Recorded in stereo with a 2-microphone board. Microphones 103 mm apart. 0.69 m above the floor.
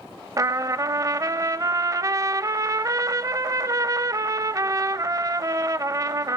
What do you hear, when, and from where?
0.4 s a trumpet: 35° right (ahead or behind), 0.5 m